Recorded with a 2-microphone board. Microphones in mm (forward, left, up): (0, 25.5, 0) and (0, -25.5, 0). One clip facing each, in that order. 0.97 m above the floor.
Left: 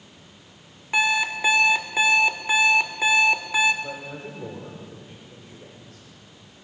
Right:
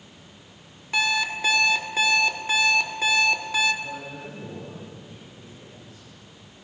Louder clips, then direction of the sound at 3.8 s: Left 1 dB; 70° left (ahead or behind).